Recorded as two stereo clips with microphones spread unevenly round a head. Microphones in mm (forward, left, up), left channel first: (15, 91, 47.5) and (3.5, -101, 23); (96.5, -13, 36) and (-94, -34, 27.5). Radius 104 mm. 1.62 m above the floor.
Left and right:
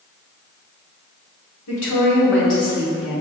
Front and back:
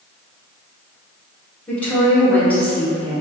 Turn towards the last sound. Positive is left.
turn(degrees=90)